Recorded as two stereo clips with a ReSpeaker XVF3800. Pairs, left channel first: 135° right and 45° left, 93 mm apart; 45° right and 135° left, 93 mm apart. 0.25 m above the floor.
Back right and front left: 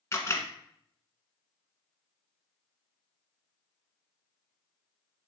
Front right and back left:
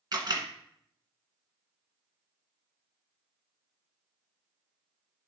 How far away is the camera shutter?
About 1.5 m.